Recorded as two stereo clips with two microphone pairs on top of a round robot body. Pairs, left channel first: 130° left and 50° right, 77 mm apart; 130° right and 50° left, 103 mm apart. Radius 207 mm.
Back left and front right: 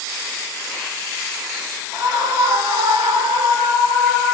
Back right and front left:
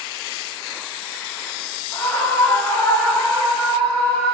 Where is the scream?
60° right, 4 m.